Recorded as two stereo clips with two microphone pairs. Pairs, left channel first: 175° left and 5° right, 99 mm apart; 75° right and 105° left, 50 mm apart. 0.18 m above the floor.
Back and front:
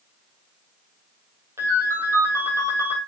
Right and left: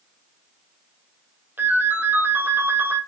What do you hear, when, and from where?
1.6 s a ringtone: 60° left, 3.5 m